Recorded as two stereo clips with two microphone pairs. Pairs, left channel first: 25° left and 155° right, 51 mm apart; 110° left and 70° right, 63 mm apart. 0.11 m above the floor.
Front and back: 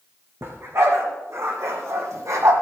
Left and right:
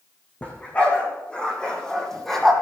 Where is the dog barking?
175° left, 3.5 m; by 2.5 s 165° right, 2.5 m.